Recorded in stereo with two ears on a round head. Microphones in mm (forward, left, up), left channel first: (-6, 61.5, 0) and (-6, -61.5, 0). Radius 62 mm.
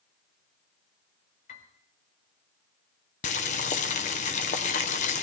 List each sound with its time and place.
1.5 s a piano: 60° left (ahead or behind), 3 m
3.2 s boiling: 55° left (ahead or behind), 1.1 m